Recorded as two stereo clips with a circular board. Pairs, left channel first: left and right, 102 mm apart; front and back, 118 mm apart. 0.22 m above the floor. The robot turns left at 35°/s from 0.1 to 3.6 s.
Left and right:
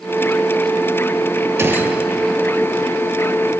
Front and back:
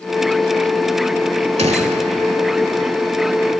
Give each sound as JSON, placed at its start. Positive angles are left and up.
{"t": 1.6, "sound": "a gunshot", "azimuth_deg": -155, "distance_m": 0.5}